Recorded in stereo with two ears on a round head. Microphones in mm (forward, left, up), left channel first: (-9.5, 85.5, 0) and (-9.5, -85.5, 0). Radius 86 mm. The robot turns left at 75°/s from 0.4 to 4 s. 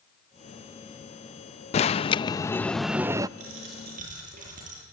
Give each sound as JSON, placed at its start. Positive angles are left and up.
{"t": 1.7, "sound": "an alarm", "azimuth_deg": 80, "distance_m": 0.6}
{"t": 3.4, "sound": "a dropped coin", "azimuth_deg": -90, "distance_m": 9.5}